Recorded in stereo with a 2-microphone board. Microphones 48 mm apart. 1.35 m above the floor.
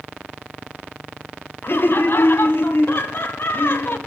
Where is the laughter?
50° left (ahead or behind), 0.6 m.